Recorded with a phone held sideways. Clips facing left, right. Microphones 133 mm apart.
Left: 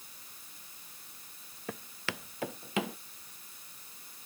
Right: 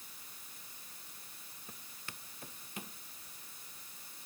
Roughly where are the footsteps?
Left.